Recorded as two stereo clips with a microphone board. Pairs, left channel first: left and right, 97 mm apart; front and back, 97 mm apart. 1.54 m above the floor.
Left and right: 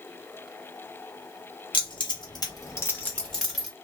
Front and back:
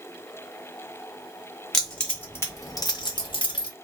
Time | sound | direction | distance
1.7 | keys jangling | 90° left | 1.2 m